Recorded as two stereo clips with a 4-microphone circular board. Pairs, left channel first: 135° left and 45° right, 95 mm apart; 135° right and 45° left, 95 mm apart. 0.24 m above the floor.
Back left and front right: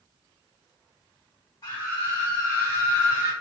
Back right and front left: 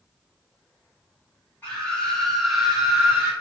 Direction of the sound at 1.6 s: 165° left.